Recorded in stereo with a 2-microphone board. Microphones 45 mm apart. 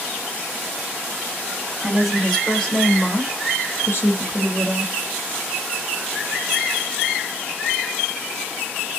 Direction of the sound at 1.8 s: 5° right (ahead or behind).